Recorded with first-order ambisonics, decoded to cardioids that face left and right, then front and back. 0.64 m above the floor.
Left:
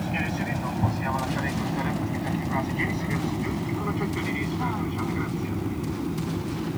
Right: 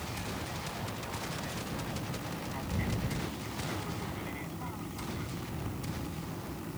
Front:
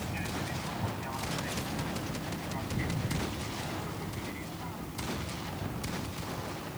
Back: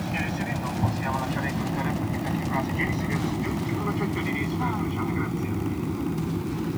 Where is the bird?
No bird in this recording.